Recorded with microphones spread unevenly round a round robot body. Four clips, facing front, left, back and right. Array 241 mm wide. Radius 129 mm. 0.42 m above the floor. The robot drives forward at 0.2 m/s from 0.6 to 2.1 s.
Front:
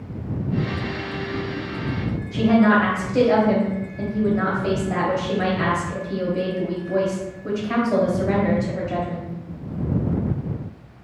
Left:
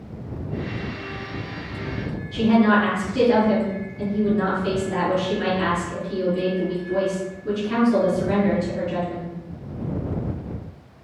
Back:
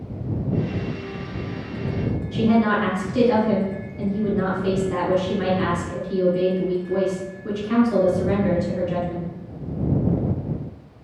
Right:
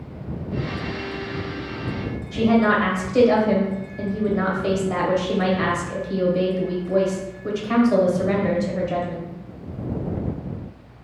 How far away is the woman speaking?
About 1.1 m.